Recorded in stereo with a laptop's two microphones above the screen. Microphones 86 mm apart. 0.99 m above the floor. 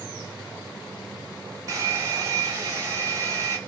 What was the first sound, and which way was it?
A hair dryer, 35° right (ahead or behind).